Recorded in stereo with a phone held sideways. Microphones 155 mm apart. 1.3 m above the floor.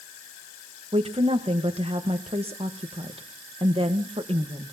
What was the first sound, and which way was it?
A woman speaking, 40° right (ahead or behind).